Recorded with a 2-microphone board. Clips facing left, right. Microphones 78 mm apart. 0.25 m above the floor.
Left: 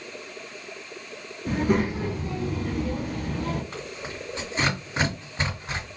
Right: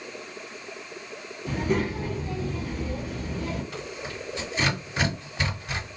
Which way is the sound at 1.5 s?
55° left (ahead or behind).